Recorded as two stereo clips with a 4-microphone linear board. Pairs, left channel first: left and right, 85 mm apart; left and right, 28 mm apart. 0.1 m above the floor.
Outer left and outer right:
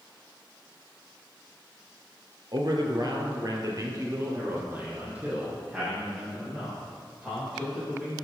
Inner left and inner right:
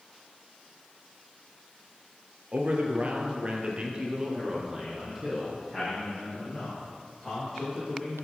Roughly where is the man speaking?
Right.